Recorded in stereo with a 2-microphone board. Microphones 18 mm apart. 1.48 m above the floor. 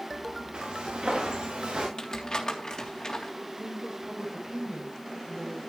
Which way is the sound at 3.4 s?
85° right.